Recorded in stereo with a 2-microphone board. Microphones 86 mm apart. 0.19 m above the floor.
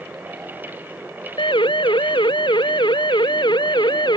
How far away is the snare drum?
I don't hear a snare drum.